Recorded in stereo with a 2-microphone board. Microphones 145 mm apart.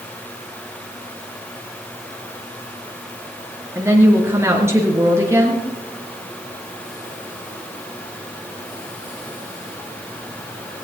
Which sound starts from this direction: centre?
A woman speaking, at 3.8 s.